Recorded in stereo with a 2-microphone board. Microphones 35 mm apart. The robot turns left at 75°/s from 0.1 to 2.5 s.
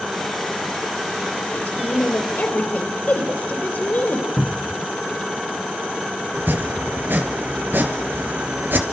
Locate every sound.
1.5 s a woman speaking: 130° left, 4.5 m; by 4.3 s 55° left, 4.5 m
4.4 s a cupboard door: 5° left (ahead or behind), 0.6 m
6.3 s chopping: 70° right (ahead or behind), 2.5 m